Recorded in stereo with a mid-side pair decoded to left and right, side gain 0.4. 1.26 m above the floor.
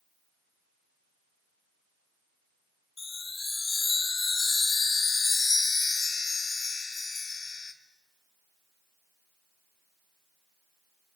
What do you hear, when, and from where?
3.0 s a chime: 35° left, 2.5 m